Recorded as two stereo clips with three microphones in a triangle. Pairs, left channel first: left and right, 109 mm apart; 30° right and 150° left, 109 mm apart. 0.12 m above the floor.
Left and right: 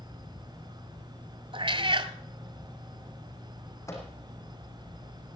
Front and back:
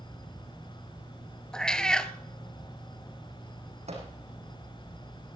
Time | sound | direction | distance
1.5 | a cat meowing | 110° right | 0.9 m
3.9 | a microwave | 155° left | 5 m